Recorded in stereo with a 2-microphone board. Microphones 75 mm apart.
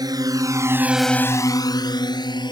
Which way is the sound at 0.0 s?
60° right (ahead or behind).